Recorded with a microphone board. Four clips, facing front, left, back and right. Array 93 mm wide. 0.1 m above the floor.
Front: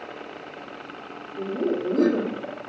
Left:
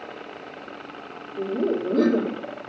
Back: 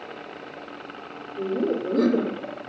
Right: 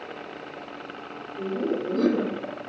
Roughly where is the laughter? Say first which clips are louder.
Left 3 dB, back 1 dB; ahead left.